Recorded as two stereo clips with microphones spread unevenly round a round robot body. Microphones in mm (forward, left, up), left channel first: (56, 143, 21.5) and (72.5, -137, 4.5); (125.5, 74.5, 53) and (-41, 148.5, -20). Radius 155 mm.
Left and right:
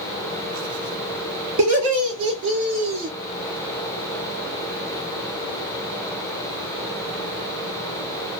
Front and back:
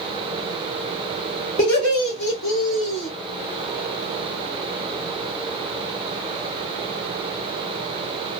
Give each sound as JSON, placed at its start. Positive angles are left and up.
{"t": 1.6, "sound": "laughter", "azimuth_deg": -80, "distance_m": 2.5}